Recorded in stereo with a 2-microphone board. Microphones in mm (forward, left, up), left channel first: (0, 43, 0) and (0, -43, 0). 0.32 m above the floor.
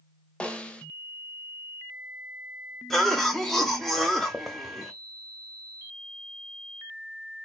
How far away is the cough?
About 1.0 m.